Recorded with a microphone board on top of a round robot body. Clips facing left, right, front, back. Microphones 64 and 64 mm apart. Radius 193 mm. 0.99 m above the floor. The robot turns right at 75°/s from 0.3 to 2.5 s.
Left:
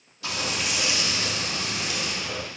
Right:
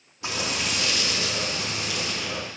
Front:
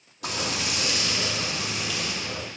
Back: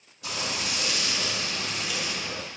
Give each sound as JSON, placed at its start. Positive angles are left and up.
{"t": 0.2, "sound": "frying", "azimuth_deg": -25, "distance_m": 4.0}